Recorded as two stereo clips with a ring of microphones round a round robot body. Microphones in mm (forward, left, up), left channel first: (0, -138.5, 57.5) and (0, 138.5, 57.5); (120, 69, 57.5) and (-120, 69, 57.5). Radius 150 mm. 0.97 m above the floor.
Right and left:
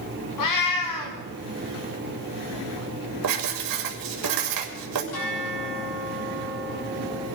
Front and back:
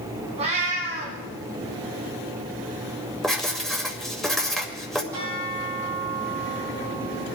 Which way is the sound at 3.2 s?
90° left.